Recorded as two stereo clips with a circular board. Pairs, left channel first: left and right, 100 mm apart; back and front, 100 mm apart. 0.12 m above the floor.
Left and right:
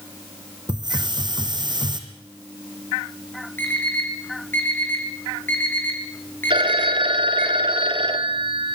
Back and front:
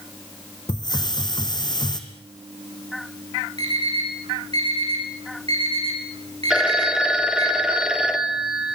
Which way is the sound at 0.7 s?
135° right.